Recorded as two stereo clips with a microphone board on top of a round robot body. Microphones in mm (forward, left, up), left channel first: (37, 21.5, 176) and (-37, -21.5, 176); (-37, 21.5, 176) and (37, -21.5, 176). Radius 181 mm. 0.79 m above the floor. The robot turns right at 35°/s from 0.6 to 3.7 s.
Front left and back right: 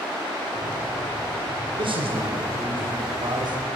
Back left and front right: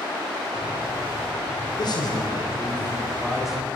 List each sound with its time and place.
1.8 s a man speaking: 175° right, 5.5 m; by 3.7 s 110° right, 5.5 m